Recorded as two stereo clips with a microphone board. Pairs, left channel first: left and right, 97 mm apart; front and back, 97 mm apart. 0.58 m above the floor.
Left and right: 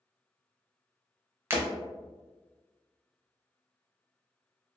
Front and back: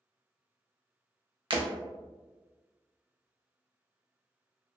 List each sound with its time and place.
1.5 s breaking glass: 150° right, 0.5 m